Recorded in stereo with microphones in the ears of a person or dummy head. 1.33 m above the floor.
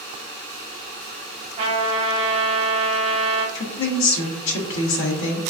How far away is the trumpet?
About 1.1 m.